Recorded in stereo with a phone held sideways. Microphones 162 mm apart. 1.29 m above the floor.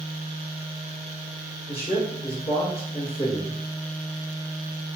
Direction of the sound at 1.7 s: 35° left (ahead or behind).